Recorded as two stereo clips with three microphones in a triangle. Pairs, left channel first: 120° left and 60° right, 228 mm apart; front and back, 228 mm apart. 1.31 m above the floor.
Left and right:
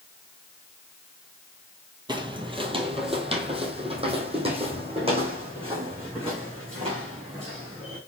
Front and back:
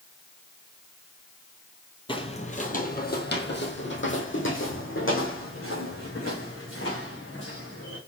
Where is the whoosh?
No whoosh in this recording.